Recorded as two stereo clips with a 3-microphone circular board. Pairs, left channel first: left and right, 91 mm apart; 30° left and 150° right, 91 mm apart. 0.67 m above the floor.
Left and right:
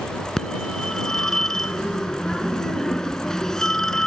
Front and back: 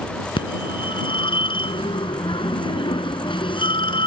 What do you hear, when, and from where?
0.4 s a phone ringing: 5° left